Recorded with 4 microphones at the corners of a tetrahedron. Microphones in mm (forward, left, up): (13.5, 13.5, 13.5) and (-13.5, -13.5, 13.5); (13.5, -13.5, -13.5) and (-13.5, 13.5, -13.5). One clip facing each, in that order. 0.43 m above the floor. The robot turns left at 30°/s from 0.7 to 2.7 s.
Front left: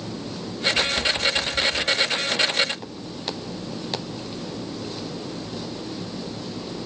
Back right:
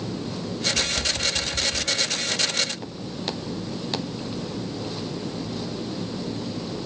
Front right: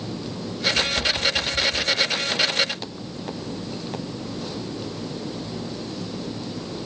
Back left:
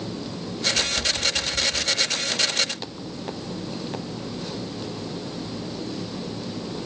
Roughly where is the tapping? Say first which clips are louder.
Front left 5 dB, front right 3 dB; ahead right.